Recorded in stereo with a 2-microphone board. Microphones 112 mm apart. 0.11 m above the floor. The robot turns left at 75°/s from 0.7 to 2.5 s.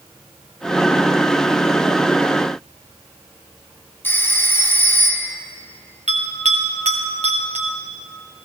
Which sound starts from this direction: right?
A bell, at 6.1 s.